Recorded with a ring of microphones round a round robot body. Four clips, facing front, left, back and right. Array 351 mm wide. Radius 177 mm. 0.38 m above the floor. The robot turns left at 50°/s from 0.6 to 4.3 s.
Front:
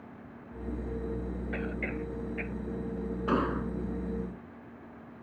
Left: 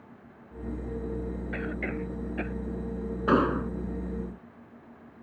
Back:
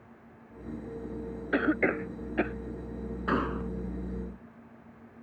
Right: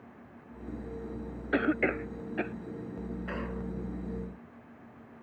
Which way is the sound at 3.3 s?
95° left.